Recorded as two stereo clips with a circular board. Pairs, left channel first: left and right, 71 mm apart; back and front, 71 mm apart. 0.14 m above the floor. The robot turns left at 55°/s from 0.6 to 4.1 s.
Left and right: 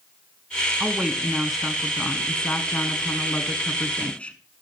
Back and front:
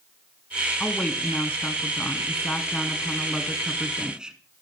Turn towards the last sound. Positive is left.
turn(degrees=55)